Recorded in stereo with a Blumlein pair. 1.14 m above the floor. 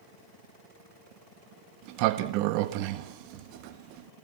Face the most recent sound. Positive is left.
turn(degrees=-45)